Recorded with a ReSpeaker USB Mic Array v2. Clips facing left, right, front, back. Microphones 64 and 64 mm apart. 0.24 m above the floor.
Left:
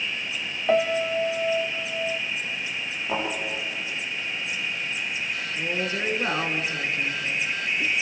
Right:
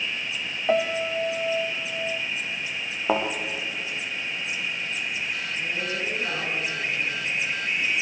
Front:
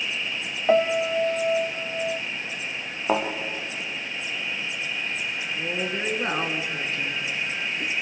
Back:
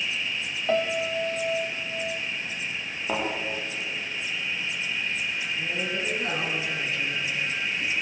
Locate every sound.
0.7 s a piano: straight ahead, 0.7 m
3.1 s a thud: 55° right, 5 m
5.5 s a woman speaking: 45° left, 2.5 m